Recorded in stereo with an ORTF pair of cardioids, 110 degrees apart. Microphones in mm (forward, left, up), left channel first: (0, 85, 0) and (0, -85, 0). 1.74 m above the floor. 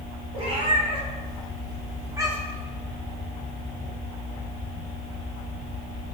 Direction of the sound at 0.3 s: 40° right.